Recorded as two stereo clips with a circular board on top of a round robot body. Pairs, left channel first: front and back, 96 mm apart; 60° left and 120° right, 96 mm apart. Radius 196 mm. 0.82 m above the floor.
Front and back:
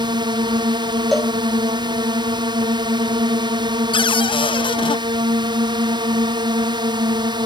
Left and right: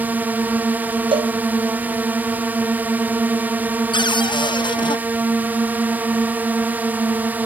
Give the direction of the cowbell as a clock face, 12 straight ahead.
3 o'clock.